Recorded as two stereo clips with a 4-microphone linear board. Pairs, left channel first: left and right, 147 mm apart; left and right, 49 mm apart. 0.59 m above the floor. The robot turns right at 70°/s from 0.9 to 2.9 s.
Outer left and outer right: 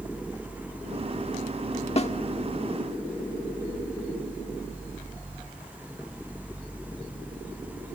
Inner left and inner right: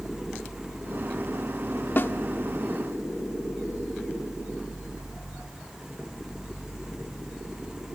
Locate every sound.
2.0 s a snare drum: 45° left (ahead or behind), 1.2 m; by 2.1 s 50° left (ahead or behind), 1.2 m